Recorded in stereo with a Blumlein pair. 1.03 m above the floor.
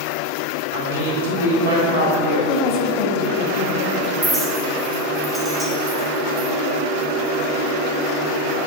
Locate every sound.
0.7 s a woman speaking: 65° right, 2.5 m; by 2.4 s 55° right, 5 m
2.5 s a woman speaking: 35° left, 1.3 m
4.2 s a clink: 5° right, 1.7 m